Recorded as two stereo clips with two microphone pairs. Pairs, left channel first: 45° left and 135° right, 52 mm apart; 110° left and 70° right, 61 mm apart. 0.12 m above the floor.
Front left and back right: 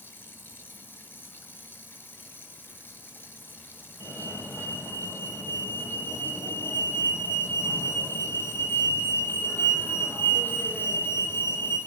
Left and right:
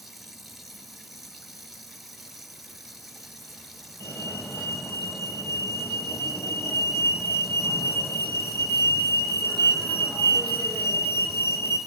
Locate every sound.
0.0 s running water: 20° left, 1.7 m
4.0 s a fire alarm: 65° left, 5 m